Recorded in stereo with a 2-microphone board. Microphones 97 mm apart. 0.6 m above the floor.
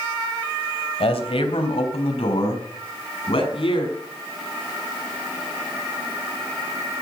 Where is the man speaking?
75° left (ahead or behind), 3 m; by 3.9 s 65° left (ahead or behind), 5.5 m.